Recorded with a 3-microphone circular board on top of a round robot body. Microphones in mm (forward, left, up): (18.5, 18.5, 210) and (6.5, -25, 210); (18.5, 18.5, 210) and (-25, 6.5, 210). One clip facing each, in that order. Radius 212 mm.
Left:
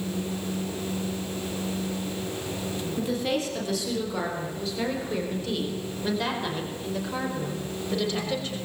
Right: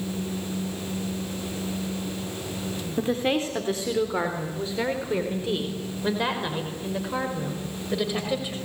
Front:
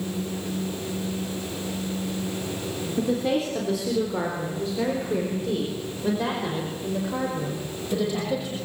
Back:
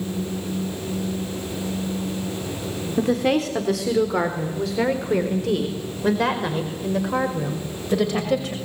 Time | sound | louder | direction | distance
3.0 | a woman speaking | right 4 dB, back 4 dB | 155° right | 3.5 m